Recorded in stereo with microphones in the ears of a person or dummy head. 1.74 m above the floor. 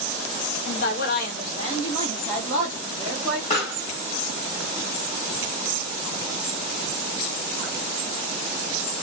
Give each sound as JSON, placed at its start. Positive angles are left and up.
{"t": 0.7, "sound": "a woman speaking", "side_deg": 50, "distance_m": 0.8}
{"t": 3.5, "sound": "a pop", "side_deg": 20, "distance_m": 1.3}